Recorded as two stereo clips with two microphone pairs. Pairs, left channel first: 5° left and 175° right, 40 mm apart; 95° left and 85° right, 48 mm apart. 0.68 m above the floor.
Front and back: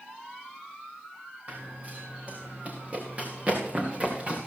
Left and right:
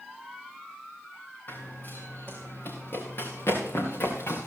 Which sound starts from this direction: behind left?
Running footsteps, at 1.5 s.